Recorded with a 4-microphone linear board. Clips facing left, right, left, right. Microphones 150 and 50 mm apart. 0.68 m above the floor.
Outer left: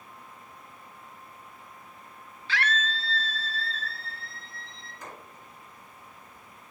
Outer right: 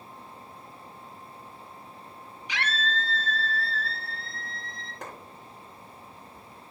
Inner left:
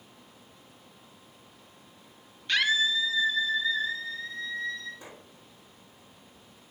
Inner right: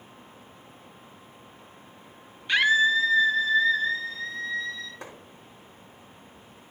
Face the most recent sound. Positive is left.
turn(degrees=-70)  # may be behind; listen again after turning